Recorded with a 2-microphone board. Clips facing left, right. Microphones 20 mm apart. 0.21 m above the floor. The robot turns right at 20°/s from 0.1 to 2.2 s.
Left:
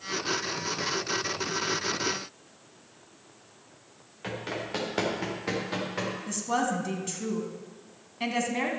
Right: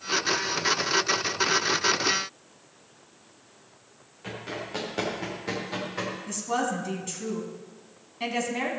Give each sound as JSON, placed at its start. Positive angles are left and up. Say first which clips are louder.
{"t": 4.2, "sound": "running footsteps", "louder": "left 1 dB", "side_deg": 30, "distance_m": 4.5}
{"t": 6.3, "sound": "a woman speaking", "louder": "even", "side_deg": 0, "distance_m": 2.0}